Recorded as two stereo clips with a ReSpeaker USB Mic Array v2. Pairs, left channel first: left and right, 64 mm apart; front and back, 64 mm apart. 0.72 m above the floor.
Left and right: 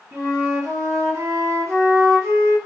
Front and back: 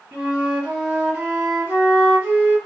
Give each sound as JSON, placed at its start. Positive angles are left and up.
{"t": 0.1, "sound": "a flute", "azimuth_deg": -115, "distance_m": 1.3}